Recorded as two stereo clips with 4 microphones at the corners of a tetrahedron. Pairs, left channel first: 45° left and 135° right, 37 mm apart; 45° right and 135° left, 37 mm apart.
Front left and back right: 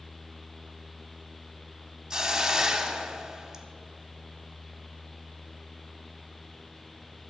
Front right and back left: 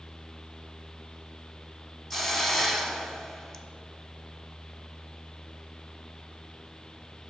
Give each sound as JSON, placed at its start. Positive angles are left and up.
{"t": 2.1, "sound": "a hiss", "azimuth_deg": -120, "distance_m": 0.8}